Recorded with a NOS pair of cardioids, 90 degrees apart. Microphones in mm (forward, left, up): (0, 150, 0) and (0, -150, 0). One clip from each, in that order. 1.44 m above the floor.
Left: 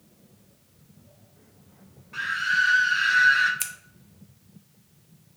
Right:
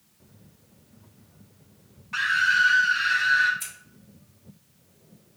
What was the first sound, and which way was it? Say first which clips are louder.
A scream: right 3 dB; 50° right.